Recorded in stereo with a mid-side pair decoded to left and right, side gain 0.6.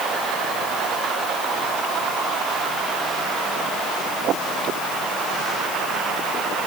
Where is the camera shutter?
No camera shutter in this recording.